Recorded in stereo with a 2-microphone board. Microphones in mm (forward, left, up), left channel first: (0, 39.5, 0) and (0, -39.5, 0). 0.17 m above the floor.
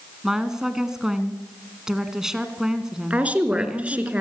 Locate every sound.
0.2 s a woman speaking: 5° right (ahead or behind), 1.7 m
3.1 s a woman speaking: 15° right (ahead or behind), 2.5 m